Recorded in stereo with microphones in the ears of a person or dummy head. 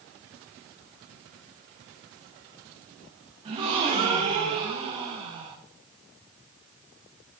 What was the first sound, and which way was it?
A gasp, 25° right (ahead or behind).